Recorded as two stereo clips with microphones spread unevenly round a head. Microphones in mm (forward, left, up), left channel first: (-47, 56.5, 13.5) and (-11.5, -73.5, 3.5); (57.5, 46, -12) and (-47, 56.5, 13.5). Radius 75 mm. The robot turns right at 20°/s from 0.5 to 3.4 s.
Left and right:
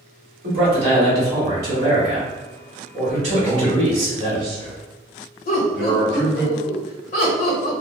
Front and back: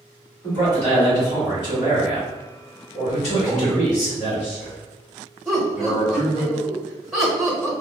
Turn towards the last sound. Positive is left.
turn(degrees=75)